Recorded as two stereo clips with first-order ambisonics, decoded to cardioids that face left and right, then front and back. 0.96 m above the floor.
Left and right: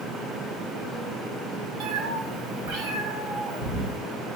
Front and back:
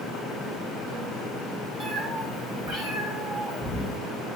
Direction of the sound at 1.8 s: 105° right.